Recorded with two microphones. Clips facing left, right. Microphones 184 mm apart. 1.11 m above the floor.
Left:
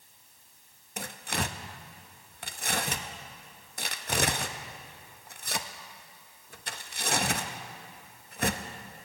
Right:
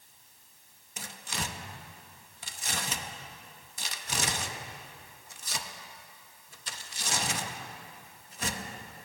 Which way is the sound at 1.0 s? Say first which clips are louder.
Left 5 dB; 55° left (ahead or behind).